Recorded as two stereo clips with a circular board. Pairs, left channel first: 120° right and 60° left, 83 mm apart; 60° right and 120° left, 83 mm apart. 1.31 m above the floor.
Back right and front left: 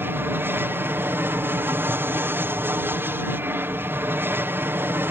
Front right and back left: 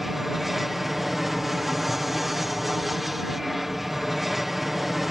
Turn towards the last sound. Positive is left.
turn(degrees=35)